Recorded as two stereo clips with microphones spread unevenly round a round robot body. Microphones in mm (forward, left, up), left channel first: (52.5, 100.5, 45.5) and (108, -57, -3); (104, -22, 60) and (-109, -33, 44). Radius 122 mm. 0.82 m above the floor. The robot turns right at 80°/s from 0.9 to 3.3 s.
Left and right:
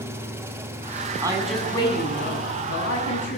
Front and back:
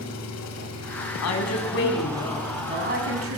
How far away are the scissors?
I don't hear scissors.